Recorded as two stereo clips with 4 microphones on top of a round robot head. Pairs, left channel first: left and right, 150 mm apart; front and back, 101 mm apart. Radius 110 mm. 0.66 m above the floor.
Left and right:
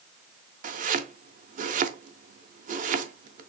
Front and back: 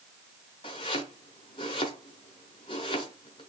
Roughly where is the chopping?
Ahead right.